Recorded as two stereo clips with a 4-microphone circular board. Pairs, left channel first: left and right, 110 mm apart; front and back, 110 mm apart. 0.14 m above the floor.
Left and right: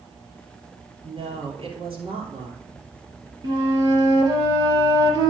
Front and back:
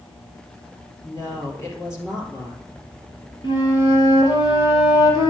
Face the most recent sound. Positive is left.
turn(degrees=-40)